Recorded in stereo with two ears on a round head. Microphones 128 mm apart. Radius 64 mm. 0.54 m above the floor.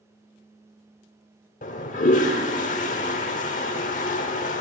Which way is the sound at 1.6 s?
60° left (ahead or behind).